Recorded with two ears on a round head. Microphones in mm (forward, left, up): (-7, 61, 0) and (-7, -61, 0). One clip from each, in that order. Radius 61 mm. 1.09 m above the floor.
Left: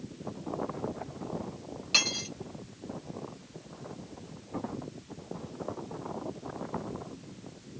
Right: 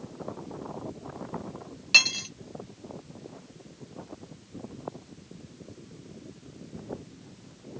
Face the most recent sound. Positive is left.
turn(degrees=-35)  # may be behind; listen again after turning